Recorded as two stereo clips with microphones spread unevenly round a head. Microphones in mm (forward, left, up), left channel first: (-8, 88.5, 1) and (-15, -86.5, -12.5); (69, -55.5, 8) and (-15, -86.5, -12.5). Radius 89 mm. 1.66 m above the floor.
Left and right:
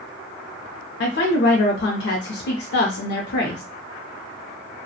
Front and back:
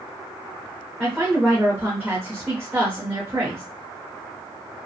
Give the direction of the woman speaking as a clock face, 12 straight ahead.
8 o'clock.